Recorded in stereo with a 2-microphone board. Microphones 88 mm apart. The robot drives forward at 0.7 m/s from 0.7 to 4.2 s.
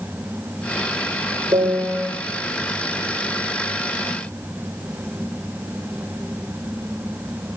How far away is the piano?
About 8.5 m.